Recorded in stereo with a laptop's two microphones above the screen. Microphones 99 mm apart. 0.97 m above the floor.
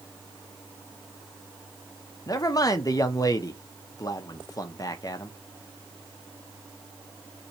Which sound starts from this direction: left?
A man speaking, at 2.3 s.